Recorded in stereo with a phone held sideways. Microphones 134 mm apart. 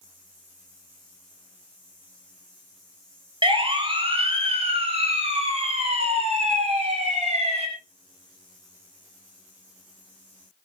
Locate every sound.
3.4 s a siren: 40° right (ahead or behind), 3.5 m; by 7.7 s 55° right (ahead or behind), 8 m